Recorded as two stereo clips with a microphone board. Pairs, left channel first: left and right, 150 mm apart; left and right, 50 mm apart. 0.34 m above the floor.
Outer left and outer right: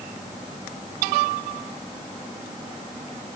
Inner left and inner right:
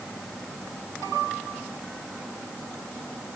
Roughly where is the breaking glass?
No breaking glass in this recording.